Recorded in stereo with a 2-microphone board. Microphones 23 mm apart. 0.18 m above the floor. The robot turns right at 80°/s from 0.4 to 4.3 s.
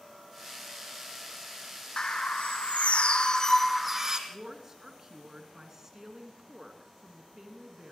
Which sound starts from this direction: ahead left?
A bird, at 2.0 s.